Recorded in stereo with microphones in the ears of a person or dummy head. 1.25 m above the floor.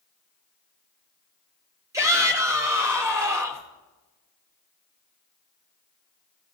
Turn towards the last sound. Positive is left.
turn(degrees=-15)  # may be behind; listen again after turning